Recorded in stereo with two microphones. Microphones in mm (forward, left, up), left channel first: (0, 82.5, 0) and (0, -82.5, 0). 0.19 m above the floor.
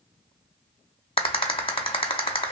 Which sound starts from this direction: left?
A rattle, at 1.2 s.